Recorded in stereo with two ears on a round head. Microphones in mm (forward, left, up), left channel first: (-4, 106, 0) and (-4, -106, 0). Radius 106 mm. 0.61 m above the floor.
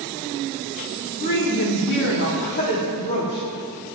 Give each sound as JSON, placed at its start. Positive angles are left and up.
{"t": 1.2, "sound": "a woman speaking", "side_deg": 45, "distance_m": 2.5}